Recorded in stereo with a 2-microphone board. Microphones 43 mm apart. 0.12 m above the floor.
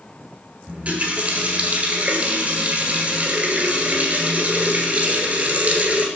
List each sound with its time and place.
0.7 s a running tap: 35° right (ahead or behind), 1.3 m